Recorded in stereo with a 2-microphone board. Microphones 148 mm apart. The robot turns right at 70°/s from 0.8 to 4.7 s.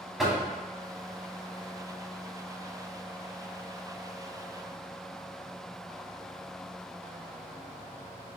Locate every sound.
0.2 s knocking: centre (ahead or behind), 0.8 m